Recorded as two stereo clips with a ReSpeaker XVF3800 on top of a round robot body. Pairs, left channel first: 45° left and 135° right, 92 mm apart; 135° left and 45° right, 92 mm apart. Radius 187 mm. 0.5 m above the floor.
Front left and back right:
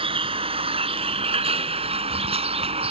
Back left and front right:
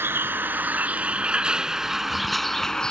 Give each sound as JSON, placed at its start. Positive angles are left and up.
{"t": 0.0, "sound": "a vehicle", "azimuth_deg": -115}